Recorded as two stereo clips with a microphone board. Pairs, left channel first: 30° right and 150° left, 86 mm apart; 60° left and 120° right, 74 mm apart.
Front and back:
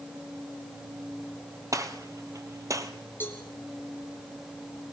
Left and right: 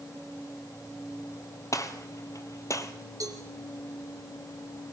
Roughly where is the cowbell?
Right.